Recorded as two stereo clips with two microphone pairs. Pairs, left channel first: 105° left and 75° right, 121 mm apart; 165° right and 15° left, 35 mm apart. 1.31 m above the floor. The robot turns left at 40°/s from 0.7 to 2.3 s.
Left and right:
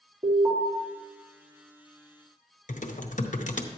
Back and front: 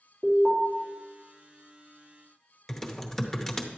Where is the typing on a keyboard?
110° left, 0.8 m.